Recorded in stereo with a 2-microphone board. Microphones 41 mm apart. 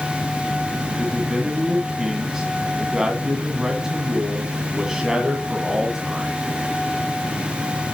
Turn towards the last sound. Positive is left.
turn(degrees=-15)  # may be behind; listen again after turning